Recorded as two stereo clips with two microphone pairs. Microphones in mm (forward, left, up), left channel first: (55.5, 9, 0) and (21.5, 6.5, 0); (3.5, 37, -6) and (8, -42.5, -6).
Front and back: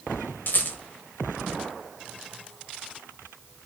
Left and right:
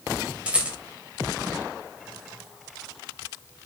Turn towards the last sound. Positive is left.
turn(degrees=-15)